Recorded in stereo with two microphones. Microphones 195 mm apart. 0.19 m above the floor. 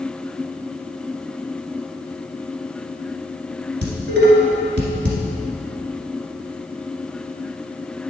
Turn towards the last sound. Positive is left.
turn(degrees=-60)  # may be behind; listen again after turning